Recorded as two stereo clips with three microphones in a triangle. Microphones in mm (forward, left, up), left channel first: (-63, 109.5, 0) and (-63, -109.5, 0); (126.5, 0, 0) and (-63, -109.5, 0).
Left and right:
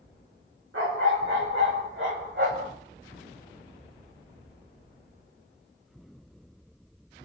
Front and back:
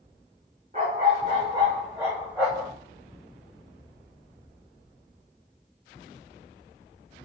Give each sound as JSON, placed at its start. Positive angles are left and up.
{"t": 0.7, "sound": "a dog barking", "azimuth_deg": -95, "distance_m": 3.5}